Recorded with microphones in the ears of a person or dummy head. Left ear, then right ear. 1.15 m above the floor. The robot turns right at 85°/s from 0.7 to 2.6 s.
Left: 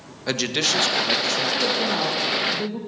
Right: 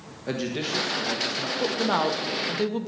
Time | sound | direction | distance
0.3 | a man speaking | 50° left | 1.1 m
1.6 | a woman speaking | 160° right | 1.0 m